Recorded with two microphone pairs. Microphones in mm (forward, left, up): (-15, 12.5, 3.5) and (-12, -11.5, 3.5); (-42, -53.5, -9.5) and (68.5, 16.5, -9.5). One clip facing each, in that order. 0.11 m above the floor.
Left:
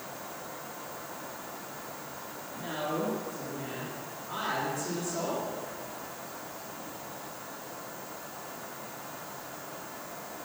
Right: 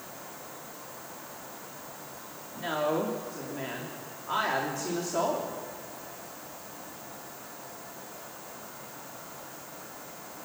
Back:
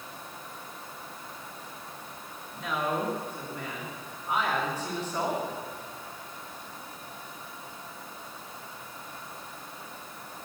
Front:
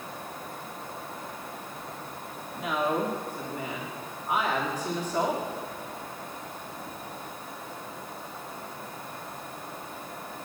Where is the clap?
I don't hear a clap.